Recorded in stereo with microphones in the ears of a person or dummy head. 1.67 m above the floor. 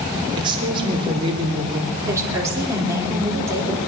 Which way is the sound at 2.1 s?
15° right (ahead or behind).